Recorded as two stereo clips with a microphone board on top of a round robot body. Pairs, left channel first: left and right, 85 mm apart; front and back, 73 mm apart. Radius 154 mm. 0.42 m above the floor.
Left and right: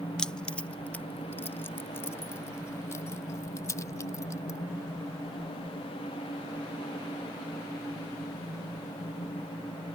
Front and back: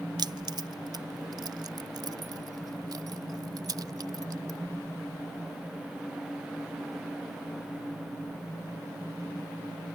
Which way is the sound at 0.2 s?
175° left.